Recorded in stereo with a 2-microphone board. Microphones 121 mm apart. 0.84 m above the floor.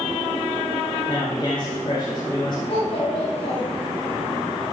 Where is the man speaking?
45° left (ahead or behind), 3.5 m.